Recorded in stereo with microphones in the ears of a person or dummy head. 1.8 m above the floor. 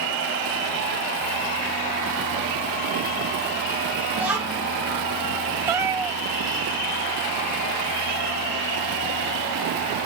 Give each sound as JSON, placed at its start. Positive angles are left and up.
{"t": 4.1, "sound": "a child speaking", "side_deg": -15, "distance_m": 2.0}
{"t": 5.7, "sound": "a cat meowing", "side_deg": -15, "distance_m": 3.5}